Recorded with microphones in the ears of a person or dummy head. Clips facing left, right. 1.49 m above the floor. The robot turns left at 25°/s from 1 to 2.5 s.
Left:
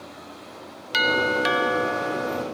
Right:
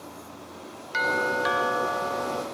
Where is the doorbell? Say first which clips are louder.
Left 4 dB; 60° left; by 2.4 s 20° left.